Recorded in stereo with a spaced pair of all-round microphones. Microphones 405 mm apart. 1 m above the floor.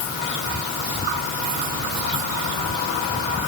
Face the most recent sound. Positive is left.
No sound to turn to.